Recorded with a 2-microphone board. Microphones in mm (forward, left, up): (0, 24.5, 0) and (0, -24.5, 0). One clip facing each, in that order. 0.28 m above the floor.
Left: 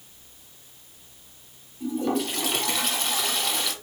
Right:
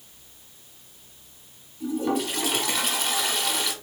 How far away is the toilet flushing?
About 1.0 m.